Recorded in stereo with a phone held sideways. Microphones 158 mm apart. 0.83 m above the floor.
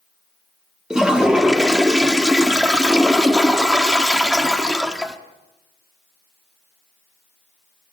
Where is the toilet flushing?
5° right (ahead or behind), 1.2 m.